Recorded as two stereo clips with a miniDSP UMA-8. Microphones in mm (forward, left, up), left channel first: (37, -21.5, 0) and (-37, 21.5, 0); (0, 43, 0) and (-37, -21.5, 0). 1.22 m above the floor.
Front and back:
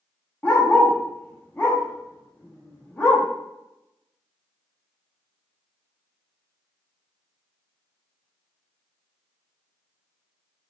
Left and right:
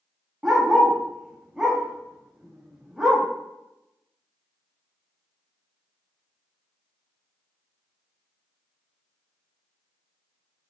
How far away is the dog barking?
About 0.6 m.